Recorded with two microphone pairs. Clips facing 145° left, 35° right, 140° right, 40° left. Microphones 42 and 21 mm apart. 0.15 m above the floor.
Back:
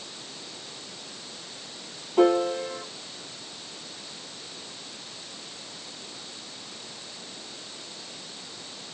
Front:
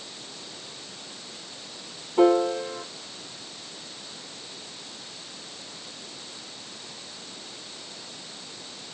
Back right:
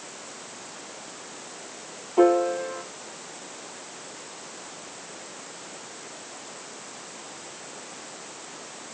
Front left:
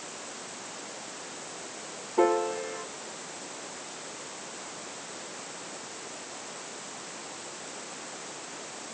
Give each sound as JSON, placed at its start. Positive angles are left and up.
{"t": 2.2, "sound": "a piano", "azimuth_deg": -150, "distance_m": 2.5}